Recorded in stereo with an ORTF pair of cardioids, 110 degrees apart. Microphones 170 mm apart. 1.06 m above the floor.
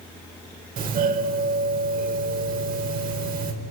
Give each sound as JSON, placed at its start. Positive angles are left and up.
{"t": 0.8, "sound": "a doorbell", "azimuth_deg": -60, "distance_m": 4.5}